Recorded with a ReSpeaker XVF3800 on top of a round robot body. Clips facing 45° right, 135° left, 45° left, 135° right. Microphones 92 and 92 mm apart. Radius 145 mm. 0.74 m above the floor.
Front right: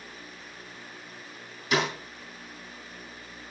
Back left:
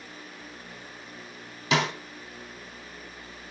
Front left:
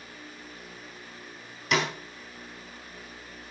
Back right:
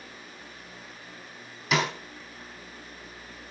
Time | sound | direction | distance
1.7 | a snare drum | 135° left | 4 m